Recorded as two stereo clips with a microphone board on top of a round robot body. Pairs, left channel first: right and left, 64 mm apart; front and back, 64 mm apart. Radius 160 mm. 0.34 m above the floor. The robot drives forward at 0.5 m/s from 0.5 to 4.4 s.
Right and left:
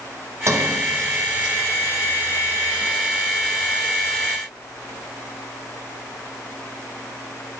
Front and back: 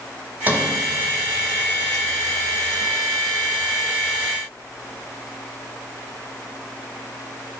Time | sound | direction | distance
0.5 | a sliding door | 120° left | 2.5 m